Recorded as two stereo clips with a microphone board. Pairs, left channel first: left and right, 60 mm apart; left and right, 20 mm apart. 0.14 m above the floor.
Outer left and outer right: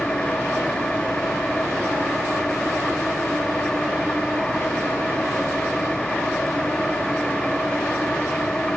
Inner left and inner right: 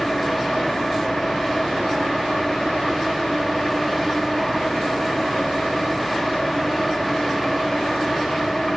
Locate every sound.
0.0 s an engine running: 15° left (ahead or behind)